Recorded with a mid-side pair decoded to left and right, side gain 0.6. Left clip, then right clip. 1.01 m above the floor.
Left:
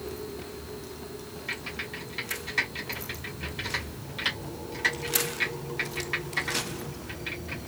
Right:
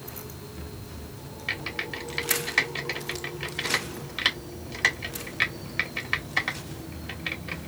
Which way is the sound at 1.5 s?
45° right.